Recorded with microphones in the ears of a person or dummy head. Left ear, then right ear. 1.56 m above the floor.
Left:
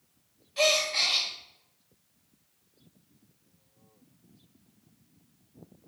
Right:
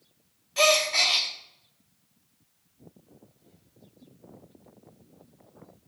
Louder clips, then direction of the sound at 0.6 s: Right 3 dB; 15° right (ahead or behind).